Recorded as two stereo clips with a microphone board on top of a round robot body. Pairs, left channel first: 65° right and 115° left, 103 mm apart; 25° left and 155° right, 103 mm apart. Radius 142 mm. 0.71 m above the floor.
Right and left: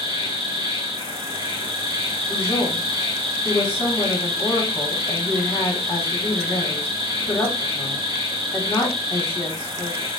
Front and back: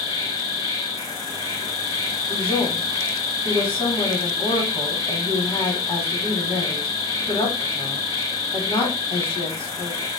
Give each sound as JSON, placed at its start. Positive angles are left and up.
{"t": 0.0, "sound": "an insect", "azimuth_deg": 80, "distance_m": 2.0}
{"t": 2.3, "sound": "a woman speaking", "azimuth_deg": -10, "distance_m": 1.4}